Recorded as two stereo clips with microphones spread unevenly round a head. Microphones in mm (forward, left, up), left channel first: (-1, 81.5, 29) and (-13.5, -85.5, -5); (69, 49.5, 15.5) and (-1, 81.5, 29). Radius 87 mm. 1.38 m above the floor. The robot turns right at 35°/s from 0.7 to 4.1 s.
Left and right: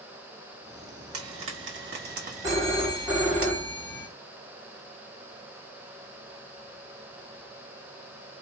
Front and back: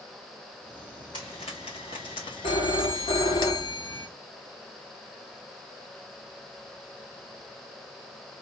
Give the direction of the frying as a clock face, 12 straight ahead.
3 o'clock.